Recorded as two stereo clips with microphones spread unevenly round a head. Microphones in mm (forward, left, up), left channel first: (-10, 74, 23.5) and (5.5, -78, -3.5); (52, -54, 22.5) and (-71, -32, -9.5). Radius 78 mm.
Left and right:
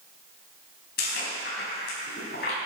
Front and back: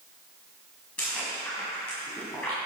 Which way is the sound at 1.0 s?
70° left.